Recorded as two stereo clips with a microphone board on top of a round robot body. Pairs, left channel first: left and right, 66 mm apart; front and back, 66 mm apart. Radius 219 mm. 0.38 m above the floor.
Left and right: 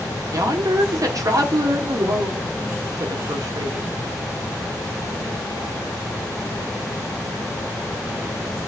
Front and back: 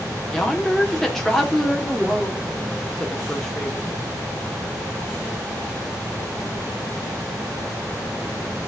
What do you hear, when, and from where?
0.3 s a woman speaking: 90° right, 1.8 m